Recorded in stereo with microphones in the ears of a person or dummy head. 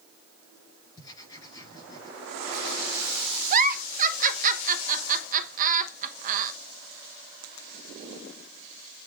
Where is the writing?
20° left (ahead or behind), 7 m.